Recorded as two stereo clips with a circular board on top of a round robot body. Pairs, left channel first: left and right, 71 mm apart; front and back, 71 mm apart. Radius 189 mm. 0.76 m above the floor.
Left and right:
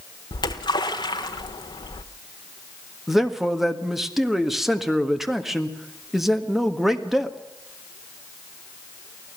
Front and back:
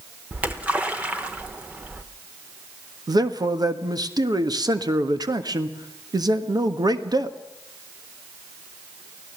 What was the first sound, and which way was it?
A splash, 105° left.